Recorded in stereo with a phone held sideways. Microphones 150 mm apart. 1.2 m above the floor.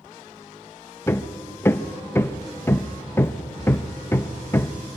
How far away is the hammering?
About 0.7 m.